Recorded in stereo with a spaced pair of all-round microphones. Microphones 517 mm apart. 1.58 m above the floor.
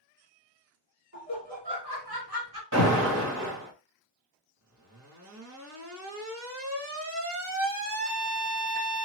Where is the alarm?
35° right (ahead or behind), 1.5 m.